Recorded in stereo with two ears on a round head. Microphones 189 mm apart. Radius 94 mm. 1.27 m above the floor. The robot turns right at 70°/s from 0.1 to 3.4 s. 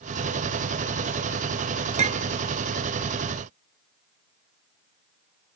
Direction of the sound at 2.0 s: 35° right (ahead or behind).